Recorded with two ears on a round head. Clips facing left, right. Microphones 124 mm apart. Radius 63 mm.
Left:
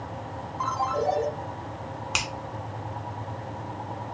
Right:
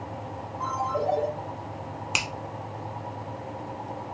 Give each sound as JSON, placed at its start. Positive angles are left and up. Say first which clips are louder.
{"t": 0.6, "sound": "a ringtone", "louder": "left 1 dB", "side_deg": 85, "distance_m": 1.8}
{"t": 2.1, "sound": "a finger snap", "louder": "even", "side_deg": -10, "distance_m": 0.6}